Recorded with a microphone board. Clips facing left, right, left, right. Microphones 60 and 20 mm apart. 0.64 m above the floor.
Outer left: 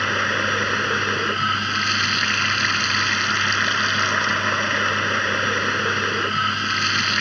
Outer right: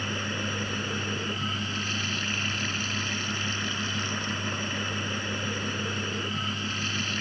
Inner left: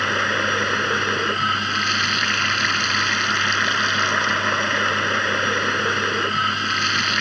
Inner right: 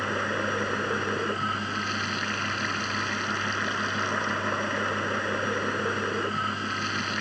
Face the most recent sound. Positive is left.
turn(degrees=80)